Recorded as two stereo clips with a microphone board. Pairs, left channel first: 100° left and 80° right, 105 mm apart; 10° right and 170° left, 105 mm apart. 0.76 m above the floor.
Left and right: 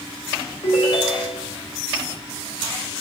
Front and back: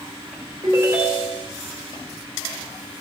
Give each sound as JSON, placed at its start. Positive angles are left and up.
{"t": 0.6, "sound": "a ringtone", "azimuth_deg": 110, "distance_m": 1.9}